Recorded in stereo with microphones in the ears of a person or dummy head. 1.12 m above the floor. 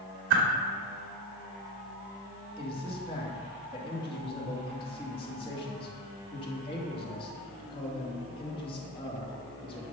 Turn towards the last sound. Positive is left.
turn(degrees=30)  # may be behind; listen again after turning